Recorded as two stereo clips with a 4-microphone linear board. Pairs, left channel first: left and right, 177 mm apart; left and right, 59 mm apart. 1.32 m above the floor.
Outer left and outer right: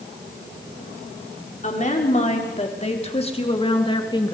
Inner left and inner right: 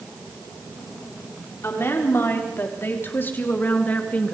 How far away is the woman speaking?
About 4.5 m.